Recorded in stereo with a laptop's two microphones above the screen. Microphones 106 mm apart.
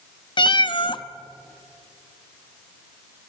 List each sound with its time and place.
0.4 s a cat meowing: 50° left (ahead or behind), 0.7 m